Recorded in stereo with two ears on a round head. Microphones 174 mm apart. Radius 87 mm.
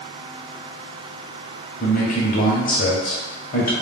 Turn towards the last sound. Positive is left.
turn(degrees=40)  # may be behind; listen again after turning